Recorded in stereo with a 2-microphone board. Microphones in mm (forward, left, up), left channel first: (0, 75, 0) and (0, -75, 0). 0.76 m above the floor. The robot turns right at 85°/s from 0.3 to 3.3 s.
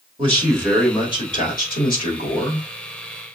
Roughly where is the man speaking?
Ahead right.